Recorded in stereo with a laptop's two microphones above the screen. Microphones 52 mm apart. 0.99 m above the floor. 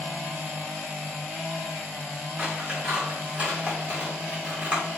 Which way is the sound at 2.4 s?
25° right (ahead or behind).